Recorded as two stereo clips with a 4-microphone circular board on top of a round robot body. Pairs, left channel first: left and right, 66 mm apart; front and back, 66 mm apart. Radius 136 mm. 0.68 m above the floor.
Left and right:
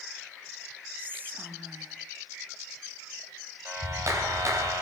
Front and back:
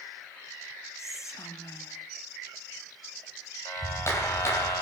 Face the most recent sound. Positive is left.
turn(degrees=-45)